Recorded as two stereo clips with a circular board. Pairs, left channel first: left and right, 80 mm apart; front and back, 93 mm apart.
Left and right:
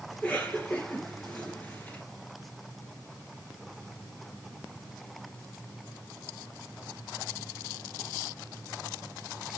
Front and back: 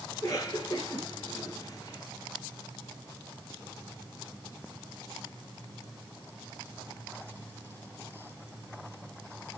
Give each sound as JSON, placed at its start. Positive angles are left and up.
{"t": 0.1, "sound": "a cough", "azimuth_deg": 20, "distance_m": 2.5}